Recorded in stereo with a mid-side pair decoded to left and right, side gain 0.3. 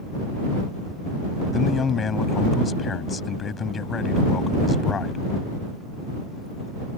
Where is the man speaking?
60° left.